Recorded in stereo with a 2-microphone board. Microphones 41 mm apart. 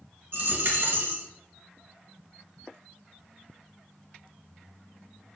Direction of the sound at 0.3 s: 55° right (ahead or behind).